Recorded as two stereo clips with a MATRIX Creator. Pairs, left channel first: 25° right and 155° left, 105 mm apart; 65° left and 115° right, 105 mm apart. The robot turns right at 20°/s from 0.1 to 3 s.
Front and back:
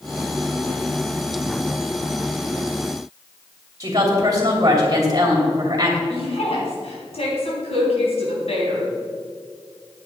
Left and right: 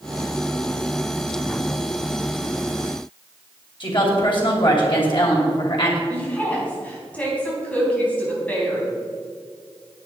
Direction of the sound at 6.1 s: 10° right.